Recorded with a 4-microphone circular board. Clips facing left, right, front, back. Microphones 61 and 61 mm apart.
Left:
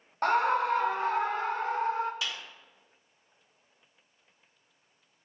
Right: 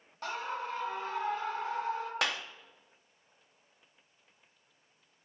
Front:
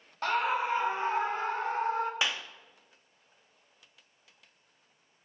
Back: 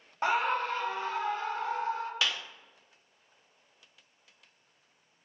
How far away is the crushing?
I don't hear crushing.